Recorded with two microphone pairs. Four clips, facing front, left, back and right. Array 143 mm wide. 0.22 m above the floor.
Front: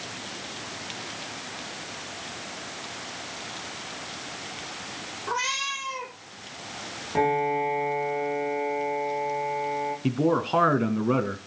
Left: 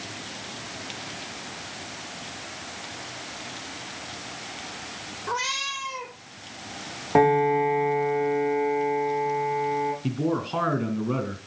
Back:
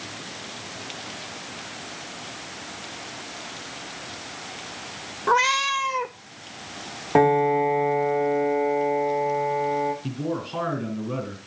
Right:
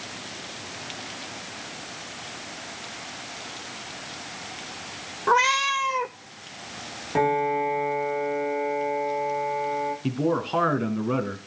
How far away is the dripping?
I don't hear dripping.